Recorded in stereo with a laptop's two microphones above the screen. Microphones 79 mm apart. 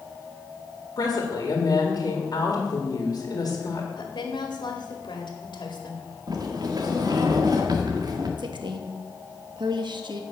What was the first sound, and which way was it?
A woman speaking, 55° left (ahead or behind).